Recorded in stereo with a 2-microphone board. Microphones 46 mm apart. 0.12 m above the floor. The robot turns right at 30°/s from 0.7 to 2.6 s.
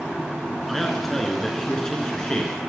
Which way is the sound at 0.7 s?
5° left (ahead or behind).